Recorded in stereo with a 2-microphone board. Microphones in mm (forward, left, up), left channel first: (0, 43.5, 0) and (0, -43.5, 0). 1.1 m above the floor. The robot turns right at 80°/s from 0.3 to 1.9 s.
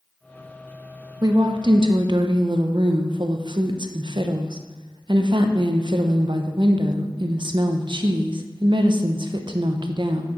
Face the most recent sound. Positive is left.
turn(degrees=-80)